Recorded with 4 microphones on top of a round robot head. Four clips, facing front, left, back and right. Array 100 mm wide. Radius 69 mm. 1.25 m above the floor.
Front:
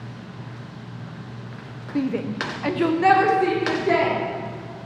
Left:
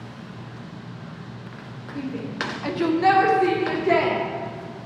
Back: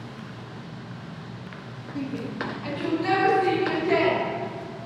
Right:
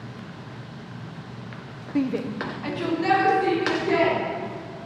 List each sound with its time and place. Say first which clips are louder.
1.9 s a shout: right 5 dB, front 7 dB; 55° right, 0.5 m; by 4.2 s 50° left, 1.8 m